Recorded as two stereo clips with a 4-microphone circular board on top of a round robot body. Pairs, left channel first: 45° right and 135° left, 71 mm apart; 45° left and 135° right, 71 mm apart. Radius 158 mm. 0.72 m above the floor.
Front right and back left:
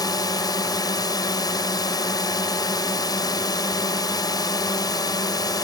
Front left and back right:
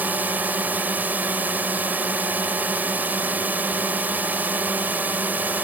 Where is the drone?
70° right.